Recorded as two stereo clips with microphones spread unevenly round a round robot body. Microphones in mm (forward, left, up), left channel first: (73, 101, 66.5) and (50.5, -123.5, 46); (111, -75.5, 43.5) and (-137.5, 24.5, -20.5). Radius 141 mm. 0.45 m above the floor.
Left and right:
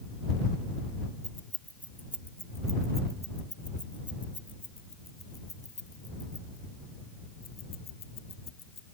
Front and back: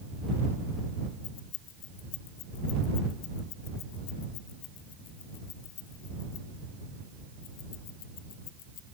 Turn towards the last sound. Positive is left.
turn(degrees=40)